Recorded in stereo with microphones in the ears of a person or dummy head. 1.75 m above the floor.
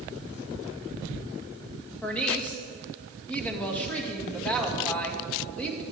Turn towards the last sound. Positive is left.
turn(degrees=5)  # may be behind; listen again after turning